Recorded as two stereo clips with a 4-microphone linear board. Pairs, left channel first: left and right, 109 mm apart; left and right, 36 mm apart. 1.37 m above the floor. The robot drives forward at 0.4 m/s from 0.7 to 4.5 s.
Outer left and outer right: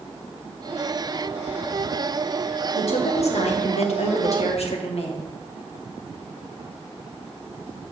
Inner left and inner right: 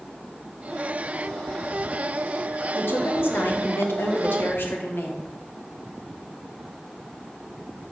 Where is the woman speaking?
70° left (ahead or behind), 1.2 m.